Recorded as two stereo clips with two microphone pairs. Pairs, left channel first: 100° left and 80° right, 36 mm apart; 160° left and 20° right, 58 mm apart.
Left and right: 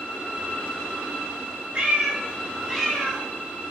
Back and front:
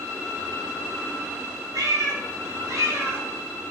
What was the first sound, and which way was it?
A cat meowing, 20° right.